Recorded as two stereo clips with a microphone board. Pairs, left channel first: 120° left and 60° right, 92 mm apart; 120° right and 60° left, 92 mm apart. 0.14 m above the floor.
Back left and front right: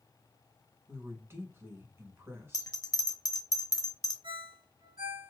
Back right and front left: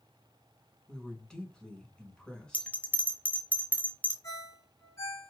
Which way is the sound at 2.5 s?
170° left.